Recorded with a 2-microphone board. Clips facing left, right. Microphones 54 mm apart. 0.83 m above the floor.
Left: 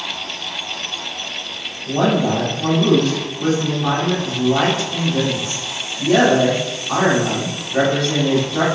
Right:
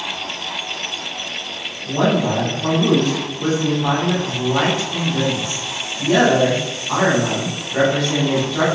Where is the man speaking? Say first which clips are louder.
Left 1 dB; centre (ahead or behind), 1.8 m.